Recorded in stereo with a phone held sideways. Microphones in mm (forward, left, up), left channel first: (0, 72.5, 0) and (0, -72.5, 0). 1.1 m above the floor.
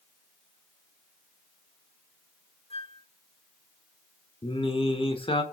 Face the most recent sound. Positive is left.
turn(degrees=40)  # may be behind; listen again after turning